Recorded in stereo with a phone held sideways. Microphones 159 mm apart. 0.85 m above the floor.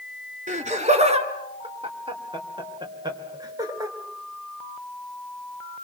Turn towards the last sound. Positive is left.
turn(degrees=-20)  # may be behind; listen again after turning